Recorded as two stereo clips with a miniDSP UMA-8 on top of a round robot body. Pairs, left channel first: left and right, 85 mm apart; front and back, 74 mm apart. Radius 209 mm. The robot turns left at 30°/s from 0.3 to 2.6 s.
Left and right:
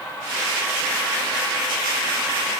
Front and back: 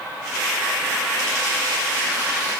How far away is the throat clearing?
No throat clearing in this recording.